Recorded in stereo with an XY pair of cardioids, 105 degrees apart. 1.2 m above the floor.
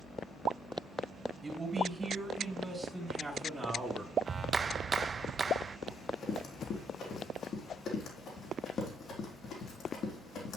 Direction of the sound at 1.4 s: 20° right.